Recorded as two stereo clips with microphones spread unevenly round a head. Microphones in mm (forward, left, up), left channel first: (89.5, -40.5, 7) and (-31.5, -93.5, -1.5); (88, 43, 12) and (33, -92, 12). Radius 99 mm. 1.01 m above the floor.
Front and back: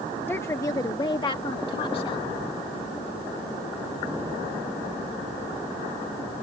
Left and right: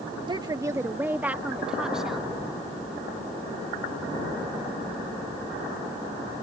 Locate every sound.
0.3 s a woman speaking: 55° right; by 2.3 s 25° right